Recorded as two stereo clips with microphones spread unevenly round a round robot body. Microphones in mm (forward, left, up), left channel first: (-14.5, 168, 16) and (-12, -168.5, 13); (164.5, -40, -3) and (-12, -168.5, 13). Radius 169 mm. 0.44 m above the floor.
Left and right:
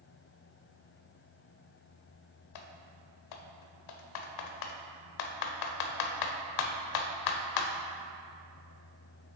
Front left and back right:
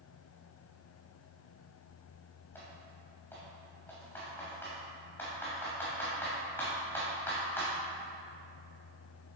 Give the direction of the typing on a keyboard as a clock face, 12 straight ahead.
8 o'clock.